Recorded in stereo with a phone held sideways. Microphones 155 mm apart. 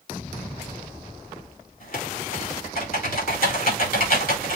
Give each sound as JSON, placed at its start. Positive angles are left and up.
{"t": 1.8, "sound": "typing on a keyboard", "side_deg": 75, "distance_m": 5.5}